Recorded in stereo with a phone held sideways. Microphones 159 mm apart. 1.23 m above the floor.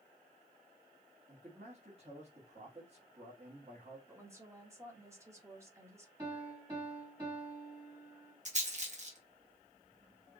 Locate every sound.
1.3 s a man speaking: 40° right (ahead or behind), 2 m
4.1 s a woman speaking: 20° right (ahead or behind), 1.4 m
6.2 s a piano: 25° right (ahead or behind), 2.5 m
8.4 s a rattle: 50° right (ahead or behind), 1.4 m